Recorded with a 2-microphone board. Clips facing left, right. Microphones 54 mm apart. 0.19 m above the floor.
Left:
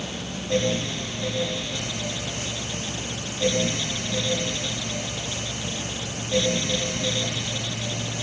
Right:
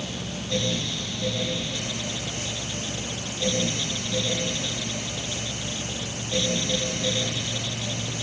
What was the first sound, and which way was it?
Only background noise.